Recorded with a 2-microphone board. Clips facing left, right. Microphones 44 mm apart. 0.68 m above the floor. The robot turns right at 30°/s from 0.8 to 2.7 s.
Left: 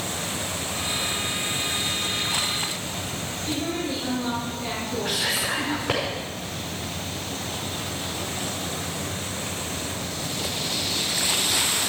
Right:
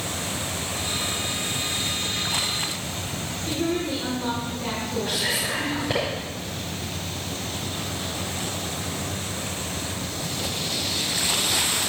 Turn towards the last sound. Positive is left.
turn(degrees=65)  # may be behind; listen again after turning